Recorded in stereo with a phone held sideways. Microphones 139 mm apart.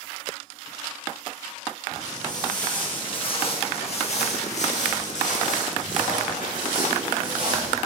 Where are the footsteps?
25° left (ahead or behind), 4 m; by 7.8 s 80° left, 5 m.